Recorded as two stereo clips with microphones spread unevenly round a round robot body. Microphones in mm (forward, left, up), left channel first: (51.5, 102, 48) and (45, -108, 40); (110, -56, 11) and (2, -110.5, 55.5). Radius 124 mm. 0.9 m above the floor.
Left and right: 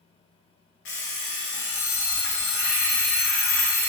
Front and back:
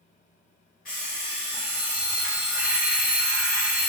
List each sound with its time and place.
0.8 s an alarm clock: 80° left, 0.6 m